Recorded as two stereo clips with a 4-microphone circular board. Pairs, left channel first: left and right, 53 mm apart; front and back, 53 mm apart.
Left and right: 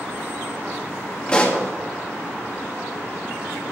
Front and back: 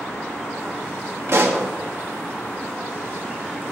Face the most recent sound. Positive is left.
turn(degrees=160)